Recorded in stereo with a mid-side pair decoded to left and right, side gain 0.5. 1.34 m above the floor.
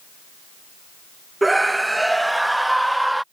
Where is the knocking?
No knocking in this recording.